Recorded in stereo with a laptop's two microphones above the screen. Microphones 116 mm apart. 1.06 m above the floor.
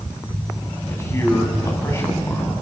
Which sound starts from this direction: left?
A man speaking, at 0.9 s.